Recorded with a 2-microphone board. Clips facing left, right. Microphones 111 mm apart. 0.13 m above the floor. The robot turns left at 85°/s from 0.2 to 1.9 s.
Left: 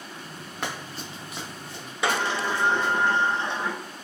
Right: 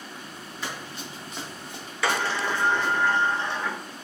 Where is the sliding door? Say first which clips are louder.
Even; 20° left (ahead or behind), 0.6 m.